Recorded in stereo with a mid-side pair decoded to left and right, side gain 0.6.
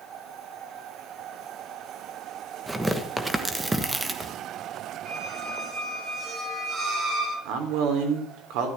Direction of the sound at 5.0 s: 50° right.